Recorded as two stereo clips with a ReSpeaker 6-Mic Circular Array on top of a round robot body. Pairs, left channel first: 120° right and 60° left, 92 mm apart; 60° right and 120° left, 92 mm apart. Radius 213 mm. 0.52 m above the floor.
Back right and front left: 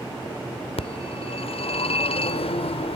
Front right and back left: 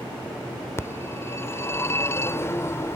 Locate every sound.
0.8 s a phone ringing: 125° right